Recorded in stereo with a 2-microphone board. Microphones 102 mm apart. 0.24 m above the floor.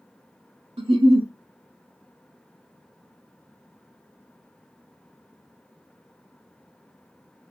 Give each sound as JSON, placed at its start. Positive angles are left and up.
{"t": 0.8, "sound": "a giggle", "side_deg": -75, "distance_m": 0.8}